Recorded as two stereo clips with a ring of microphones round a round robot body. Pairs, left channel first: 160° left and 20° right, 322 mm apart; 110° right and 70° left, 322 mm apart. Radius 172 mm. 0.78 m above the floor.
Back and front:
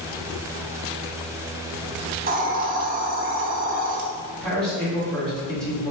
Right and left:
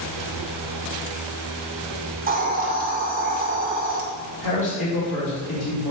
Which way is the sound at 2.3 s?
25° left.